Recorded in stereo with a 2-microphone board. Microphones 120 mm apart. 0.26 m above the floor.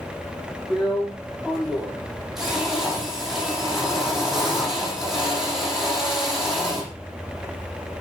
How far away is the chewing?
No chewing in this recording.